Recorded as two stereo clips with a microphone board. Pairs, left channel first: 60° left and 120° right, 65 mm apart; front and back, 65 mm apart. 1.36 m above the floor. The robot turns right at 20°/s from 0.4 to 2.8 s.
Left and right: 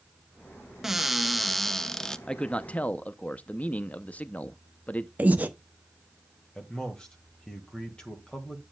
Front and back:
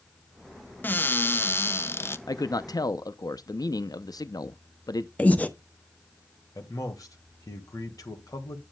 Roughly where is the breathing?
Ahead right.